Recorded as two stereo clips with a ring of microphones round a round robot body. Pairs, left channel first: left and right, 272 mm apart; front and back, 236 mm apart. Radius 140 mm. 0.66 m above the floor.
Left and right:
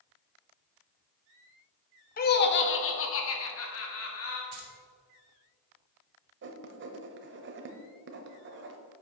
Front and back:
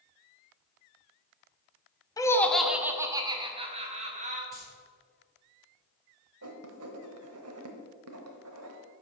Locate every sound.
2.2 s laughter: 65° left, 0.8 m; by 4.4 s 125° left, 1.7 m
4.5 s keys jangling: 90° right, 1.7 m
6.4 s writing: 140° right, 0.8 m